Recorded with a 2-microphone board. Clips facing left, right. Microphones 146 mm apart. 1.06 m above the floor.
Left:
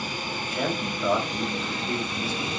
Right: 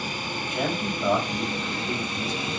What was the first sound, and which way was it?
A man speaking, 15° right (ahead or behind).